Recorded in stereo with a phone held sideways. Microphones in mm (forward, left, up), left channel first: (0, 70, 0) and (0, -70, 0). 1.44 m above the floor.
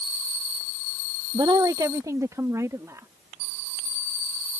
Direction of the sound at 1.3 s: 35° right (ahead or behind).